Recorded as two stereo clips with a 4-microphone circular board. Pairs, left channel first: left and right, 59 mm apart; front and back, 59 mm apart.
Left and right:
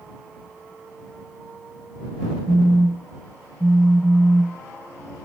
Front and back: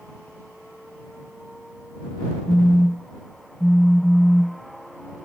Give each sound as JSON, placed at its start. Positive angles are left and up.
{"t": 2.5, "sound": "a phone buzzing", "azimuth_deg": -85}